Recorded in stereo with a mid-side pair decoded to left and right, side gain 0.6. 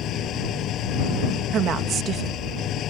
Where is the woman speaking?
50° right.